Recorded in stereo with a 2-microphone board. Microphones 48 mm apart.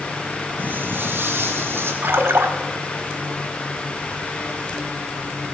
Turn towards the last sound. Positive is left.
turn(degrees=-70)  # may be behind; listen again after turning